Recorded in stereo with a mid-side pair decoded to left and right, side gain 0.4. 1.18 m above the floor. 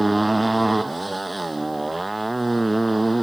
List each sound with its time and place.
0.0 s a motorcycle: 15° right